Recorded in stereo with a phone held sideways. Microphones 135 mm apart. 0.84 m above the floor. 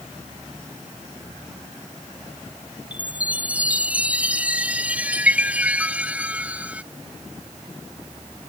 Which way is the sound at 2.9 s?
10° right (ahead or behind).